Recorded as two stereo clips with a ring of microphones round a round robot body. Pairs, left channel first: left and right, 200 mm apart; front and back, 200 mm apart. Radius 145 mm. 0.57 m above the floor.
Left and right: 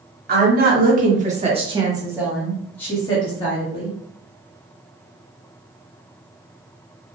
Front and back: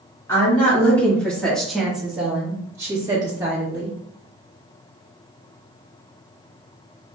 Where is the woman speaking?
75° right, 1.7 m; by 4.0 s 125° left, 1.5 m.